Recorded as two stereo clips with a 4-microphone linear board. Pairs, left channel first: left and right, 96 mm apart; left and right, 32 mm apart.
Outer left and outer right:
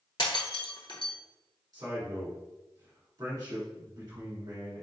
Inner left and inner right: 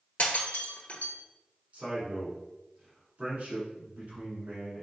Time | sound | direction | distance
0.2 | breaking glass | 55° left (ahead or behind) | 0.9 m
1.7 | a man speaking | 45° right (ahead or behind) | 1.9 m